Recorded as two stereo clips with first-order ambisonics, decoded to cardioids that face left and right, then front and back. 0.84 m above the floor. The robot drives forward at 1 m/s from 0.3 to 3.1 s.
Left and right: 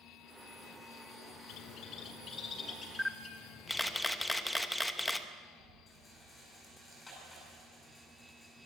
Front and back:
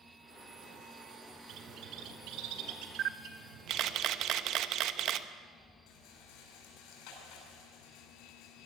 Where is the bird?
130° left, 1.3 m; by 4.0 s 160° left, 2.5 m.